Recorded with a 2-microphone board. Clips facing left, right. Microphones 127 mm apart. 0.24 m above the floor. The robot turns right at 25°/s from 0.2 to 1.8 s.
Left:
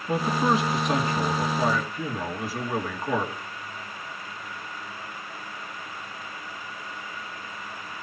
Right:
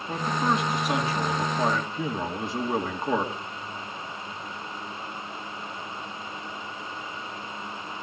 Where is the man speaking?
165° left, 3 m; by 3.3 s 155° right, 3 m.